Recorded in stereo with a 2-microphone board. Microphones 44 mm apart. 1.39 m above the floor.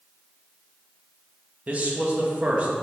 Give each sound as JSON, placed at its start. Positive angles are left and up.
{"t": 1.7, "sound": "a man speaking", "side_deg": -30, "distance_m": 0.6}